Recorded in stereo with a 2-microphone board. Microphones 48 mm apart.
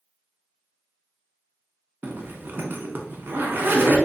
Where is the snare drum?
I don't hear a snare drum.